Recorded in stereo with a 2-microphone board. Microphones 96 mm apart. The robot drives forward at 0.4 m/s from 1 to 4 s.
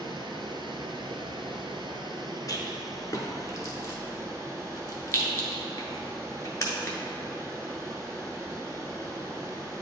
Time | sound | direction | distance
0.0 | running water | 60° right (ahead or behind) | 0.8 m
2.5 | a rattle | 40° left (ahead or behind) | 1.1 m